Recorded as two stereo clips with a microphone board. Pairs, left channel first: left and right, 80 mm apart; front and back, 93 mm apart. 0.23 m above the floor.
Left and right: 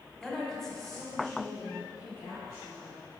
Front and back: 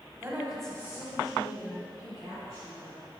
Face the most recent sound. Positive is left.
turn(degrees=0)